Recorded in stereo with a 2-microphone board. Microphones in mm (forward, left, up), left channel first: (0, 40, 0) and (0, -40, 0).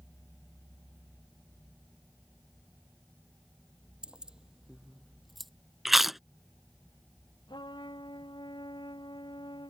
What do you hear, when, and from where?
4.0 s keys jangling: 10° right (ahead or behind); by 5.5 s centre (ahead or behind)
5.8 s chewing: 5° right (ahead or behind)
7.5 s a trumpet: 90° left